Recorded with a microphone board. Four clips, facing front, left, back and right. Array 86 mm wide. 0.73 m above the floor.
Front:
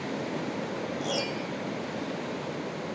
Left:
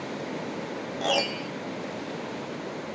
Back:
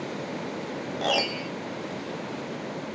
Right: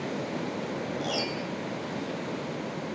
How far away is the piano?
About 1.2 m.